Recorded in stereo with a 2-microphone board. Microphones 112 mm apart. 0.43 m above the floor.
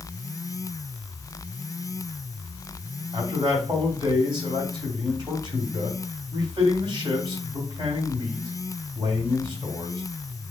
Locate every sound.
3.1 s a man speaking: 50° right (ahead or behind), 2 m